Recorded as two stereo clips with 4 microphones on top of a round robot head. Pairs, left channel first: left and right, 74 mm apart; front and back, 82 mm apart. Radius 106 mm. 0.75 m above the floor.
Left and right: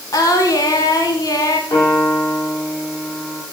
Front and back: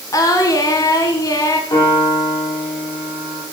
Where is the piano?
40° left, 9 m.